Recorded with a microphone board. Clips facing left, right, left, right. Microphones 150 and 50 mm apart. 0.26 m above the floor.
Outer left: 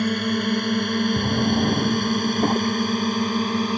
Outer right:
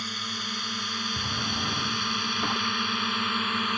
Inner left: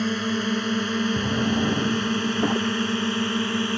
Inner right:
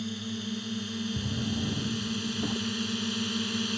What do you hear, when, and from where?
0.0 s a drone: 60° left (ahead or behind); by 3.8 s 35° left (ahead or behind)
1.2 s a drawer: 45° left (ahead or behind)